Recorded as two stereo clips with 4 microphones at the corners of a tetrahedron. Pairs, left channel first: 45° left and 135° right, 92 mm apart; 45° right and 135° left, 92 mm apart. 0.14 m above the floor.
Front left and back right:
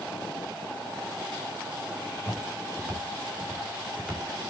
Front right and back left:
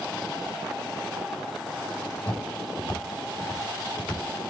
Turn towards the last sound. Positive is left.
turn(degrees=-50)